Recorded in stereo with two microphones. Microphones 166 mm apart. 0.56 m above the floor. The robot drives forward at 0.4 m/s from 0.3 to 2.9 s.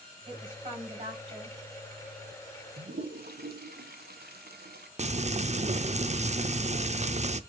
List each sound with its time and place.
0.3 s a woman speaking: 30° right (ahead or behind), 3.5 m; by 1.6 s 35° right (ahead or behind), 3 m
2.8 s a toilet flushing: 70° right (ahead or behind), 0.8 m
5.0 s frying: 45° right (ahead or behind), 0.5 m